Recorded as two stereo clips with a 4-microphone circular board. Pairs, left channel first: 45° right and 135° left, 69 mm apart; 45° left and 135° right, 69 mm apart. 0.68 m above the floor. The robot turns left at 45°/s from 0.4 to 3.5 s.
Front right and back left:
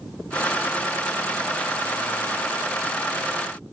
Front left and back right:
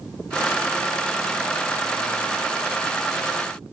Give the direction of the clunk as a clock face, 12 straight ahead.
No clunk in this recording.